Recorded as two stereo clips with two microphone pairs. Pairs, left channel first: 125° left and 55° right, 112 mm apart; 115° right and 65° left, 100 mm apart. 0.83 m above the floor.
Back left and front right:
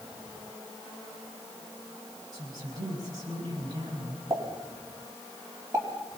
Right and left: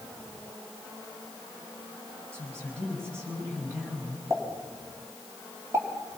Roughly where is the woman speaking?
Ahead.